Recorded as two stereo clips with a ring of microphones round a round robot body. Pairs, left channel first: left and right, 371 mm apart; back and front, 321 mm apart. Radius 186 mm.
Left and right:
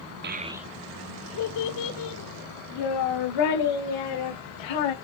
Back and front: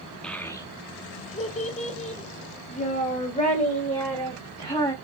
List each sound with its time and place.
0.2 s a child speaking: 95° right, 0.5 m; by 4.9 s 110° left, 2.5 m